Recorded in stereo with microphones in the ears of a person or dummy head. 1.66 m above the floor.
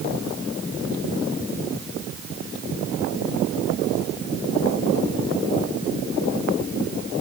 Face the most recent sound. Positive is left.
No sound to turn to.